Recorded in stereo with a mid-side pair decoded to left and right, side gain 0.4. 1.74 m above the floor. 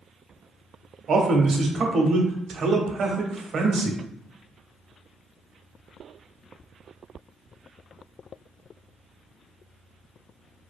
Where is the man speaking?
55° right, 0.7 m.